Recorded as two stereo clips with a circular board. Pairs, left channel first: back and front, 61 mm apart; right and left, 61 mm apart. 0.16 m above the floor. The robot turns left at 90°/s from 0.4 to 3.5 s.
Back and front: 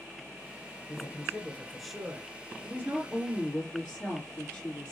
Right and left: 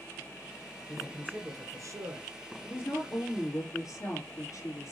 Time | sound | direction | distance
0.9 | a man speaking | 175° left | 2 m
2.6 | a woman speaking | 35° right | 3 m